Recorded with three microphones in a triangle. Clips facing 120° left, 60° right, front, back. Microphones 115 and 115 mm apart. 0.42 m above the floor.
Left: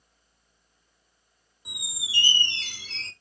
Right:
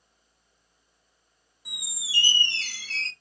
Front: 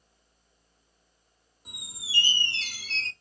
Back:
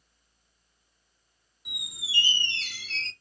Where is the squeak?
50° left, 0.5 m.